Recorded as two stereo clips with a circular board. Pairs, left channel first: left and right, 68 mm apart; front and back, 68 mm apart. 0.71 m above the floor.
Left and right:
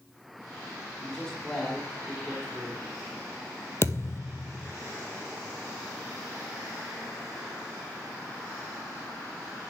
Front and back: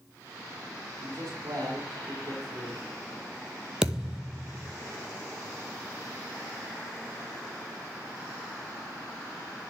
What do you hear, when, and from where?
1.0 s a man speaking: 165° left, 3 m
3.8 s a thud: 105° left, 0.9 m